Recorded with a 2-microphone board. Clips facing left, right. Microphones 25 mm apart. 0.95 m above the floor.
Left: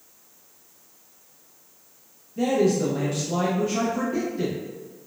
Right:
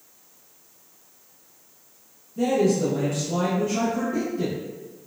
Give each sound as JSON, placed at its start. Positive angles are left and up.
{"t": 2.4, "sound": "a man speaking", "side_deg": 15, "distance_m": 0.6}